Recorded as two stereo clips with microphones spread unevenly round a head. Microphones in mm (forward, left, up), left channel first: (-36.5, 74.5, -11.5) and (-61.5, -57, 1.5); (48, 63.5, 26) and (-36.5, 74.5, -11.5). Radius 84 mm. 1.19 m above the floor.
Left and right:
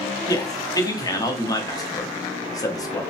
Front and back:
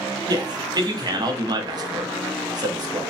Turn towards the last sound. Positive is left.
turn(degrees=140)